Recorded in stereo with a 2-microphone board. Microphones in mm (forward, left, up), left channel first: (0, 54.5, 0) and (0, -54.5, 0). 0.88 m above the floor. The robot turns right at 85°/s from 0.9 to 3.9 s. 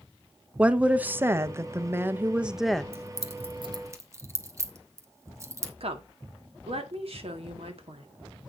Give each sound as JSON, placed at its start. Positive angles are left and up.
{"t": 0.6, "sound": "a woman speaking", "side_deg": -10, "distance_m": 0.7}
{"t": 2.9, "sound": "keys jangling", "side_deg": -65, "distance_m": 1.2}
{"t": 5.8, "sound": "a woman speaking", "side_deg": -65, "distance_m": 1.8}